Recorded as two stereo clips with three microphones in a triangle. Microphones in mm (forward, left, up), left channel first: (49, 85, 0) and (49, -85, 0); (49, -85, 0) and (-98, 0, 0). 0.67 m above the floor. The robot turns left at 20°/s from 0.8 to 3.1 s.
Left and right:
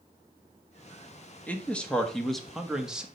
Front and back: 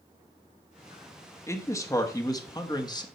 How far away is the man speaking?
About 1.2 m.